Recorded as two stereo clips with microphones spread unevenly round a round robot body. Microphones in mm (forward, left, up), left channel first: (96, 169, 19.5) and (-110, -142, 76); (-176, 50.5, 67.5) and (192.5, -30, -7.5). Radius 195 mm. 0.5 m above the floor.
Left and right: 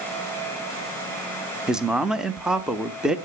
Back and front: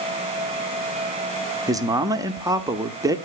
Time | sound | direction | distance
1.7 | a man speaking | 15° right | 0.8 m